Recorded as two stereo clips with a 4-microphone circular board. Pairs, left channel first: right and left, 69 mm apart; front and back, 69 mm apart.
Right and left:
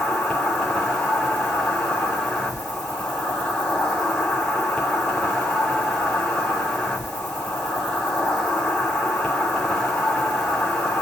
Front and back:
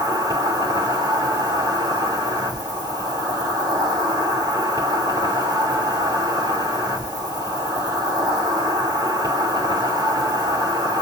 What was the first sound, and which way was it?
An insect, 175° right.